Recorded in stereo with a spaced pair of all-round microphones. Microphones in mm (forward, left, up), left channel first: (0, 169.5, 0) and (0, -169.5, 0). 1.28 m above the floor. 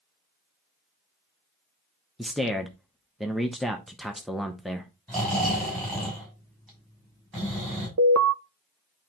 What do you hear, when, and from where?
2.2 s a man speaking: centre (ahead or behind), 0.8 m
5.1 s snoring: centre (ahead or behind), 6 m
8.0 s an alarm: 50° right (ahead or behind), 0.6 m